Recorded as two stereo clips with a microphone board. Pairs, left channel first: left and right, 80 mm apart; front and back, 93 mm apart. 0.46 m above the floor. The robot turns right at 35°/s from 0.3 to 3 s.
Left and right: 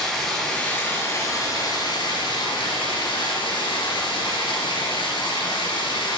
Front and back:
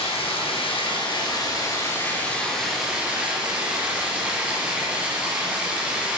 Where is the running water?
5° left, 3.5 m; by 6.2 s 100° left, 3.5 m.